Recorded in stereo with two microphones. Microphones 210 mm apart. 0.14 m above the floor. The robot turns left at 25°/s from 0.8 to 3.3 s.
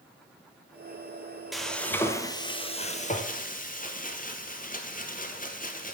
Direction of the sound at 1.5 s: Straight behind.